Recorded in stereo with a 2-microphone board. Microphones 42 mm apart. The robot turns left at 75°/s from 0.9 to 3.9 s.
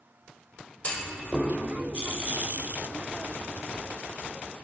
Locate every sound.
0.8 s a clunk: 35° left (ahead or behind), 0.8 m; by 1.5 s 10° right (ahead or behind), 0.8 m